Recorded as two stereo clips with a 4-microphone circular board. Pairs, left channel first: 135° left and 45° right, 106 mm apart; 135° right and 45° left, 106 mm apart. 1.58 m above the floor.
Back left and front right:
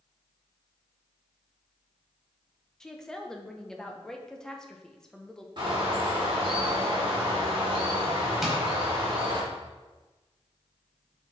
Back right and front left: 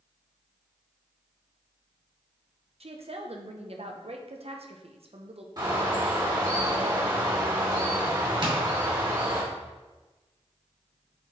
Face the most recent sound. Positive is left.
turn(degrees=40)